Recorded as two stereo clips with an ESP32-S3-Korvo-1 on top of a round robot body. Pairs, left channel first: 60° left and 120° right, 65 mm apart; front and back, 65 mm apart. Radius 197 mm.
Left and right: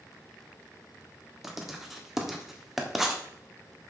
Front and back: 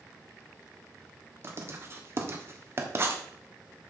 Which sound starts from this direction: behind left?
Writing, at 1.4 s.